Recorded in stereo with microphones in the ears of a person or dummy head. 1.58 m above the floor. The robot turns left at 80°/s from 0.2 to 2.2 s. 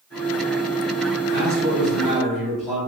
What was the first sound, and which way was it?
A man speaking, 115° right.